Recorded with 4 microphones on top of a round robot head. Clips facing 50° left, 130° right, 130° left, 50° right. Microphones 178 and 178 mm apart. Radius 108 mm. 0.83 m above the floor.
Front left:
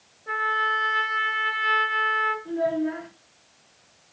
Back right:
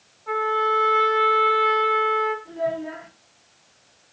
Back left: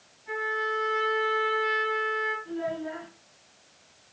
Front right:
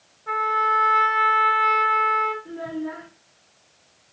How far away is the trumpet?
About 3.5 m.